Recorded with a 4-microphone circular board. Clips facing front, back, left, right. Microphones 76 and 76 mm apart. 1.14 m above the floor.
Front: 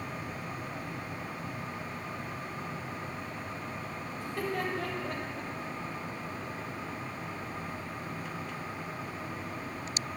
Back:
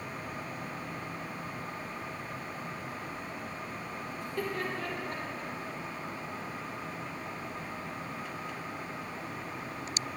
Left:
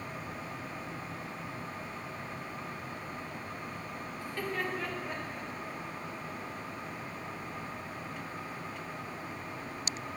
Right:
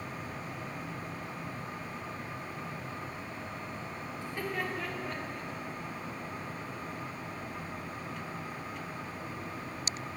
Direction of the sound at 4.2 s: 25° right.